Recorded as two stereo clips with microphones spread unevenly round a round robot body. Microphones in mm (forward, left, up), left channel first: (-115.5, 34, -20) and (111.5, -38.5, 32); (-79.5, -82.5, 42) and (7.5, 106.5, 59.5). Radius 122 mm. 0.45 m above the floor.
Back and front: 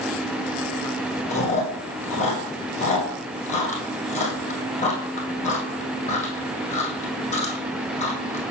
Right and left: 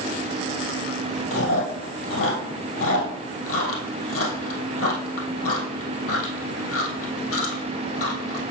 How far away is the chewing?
About 2.5 m.